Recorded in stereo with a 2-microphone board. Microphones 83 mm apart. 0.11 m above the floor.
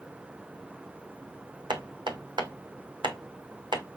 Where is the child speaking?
No child speaking in this recording.